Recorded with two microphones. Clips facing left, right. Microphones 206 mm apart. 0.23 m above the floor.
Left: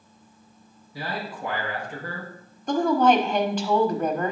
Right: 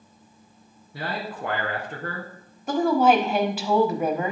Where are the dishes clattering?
I don't hear dishes clattering.